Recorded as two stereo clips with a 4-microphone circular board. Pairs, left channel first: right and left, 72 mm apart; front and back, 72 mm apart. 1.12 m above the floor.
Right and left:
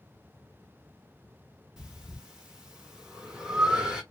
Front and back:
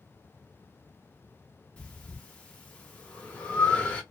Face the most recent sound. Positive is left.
turn(degrees=30)